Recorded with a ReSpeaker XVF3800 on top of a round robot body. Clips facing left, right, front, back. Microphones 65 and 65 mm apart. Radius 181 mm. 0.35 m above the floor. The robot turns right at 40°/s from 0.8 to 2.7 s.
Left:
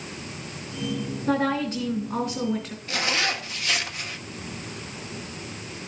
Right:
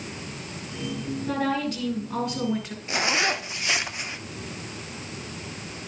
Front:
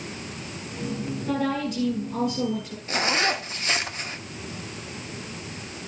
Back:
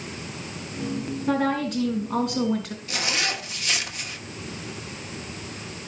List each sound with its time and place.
1.3 s a woman speaking: 140° left, 3.5 m; by 2.8 s 165° right, 3.5 m
2.9 s a zipper: 30° right, 1.4 m